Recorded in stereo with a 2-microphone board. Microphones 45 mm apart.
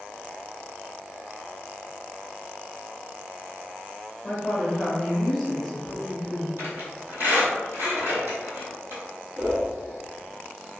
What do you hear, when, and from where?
4.2 s a woman speaking: 5° left (ahead or behind), 1.0 m
6.6 s a squeak: 50° right (ahead or behind), 1.5 m
9.4 s a whoosh: 20° right (ahead or behind), 1.4 m